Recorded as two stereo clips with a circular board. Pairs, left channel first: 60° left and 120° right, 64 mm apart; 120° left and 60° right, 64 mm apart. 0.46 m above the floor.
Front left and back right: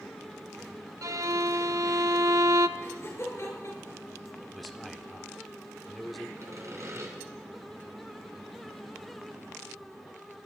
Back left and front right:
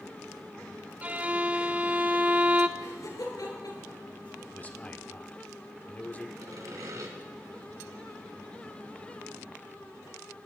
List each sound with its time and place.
1.0 s a violin: 120° right, 0.7 m
2.8 s laughter: 105° left, 7.5 m
4.5 s a man speaking: 150° left, 1.3 m
6.4 s sawing: 85° right, 3 m